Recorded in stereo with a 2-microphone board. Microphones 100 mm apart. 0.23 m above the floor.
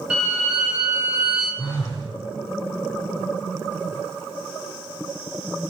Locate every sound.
0.1 s a violin: 10° right (ahead or behind), 1.0 m
1.6 s a phone buzzing: 40° left (ahead or behind), 0.9 m